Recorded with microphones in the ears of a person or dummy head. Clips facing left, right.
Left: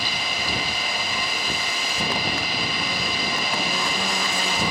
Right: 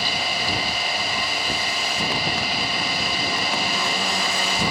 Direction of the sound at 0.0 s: 40° right (ahead or behind).